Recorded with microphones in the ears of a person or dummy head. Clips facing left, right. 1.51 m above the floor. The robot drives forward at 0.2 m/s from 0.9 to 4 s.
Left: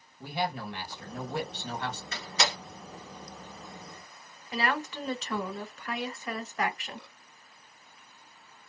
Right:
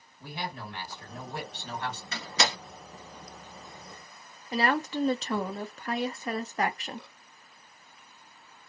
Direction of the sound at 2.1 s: 55° right (ahead or behind).